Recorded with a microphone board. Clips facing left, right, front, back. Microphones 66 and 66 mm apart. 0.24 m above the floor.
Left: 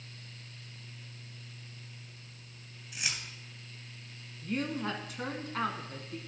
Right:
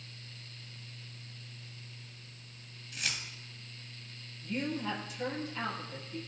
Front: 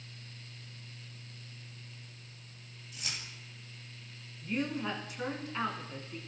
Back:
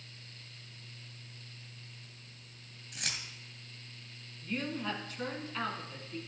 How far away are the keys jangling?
About 2 m.